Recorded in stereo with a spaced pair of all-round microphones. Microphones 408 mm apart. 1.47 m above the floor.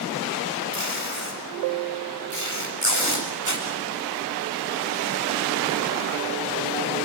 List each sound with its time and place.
0.7 s tape being pulled: 45° right (ahead or behind), 7.5 m